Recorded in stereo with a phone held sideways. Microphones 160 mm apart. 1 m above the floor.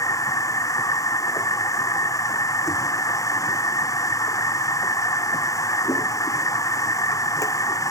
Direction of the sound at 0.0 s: 20° left (ahead or behind).